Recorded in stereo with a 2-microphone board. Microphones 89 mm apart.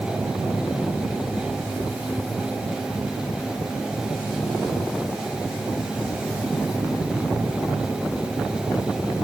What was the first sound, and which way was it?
Only background noise.